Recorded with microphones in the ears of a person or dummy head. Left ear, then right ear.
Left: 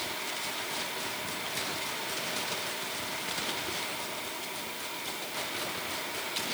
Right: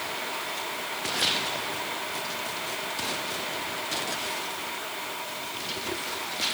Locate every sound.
Only background noise.